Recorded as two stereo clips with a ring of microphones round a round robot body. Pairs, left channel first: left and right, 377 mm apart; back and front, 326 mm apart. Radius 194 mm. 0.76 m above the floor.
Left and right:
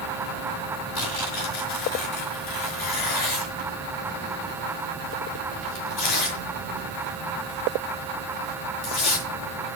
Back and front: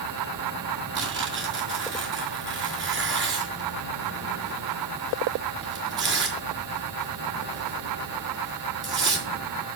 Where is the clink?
No clink in this recording.